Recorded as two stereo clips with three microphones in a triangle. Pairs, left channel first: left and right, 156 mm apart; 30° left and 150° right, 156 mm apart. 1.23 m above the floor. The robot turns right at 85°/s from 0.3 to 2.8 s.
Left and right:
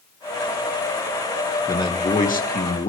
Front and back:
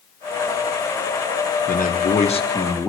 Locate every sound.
1.7 s a man speaking: 20° left, 1.4 m; by 2.9 s 115° left, 1.4 m